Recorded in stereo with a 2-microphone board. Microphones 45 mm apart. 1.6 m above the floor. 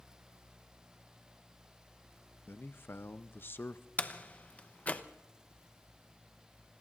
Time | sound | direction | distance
2.5 | a man speaking | 55° left (ahead or behind) | 0.6 m
4.0 | a door slam | 35° left (ahead or behind) | 0.7 m